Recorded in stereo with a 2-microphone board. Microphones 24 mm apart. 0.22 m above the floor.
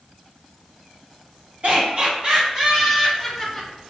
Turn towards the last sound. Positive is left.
turn(degrees=10)  # may be behind; listen again after turning